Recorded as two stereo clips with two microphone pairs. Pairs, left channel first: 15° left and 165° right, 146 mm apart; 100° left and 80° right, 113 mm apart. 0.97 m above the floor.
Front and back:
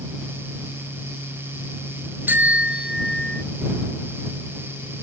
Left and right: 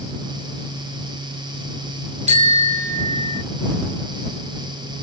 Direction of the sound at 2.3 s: 90° right.